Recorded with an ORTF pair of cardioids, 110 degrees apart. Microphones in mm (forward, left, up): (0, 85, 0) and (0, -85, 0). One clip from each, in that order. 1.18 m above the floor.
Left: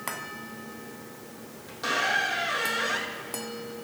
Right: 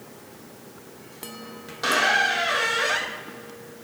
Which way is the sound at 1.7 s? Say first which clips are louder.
Right 5 dB; 35° right.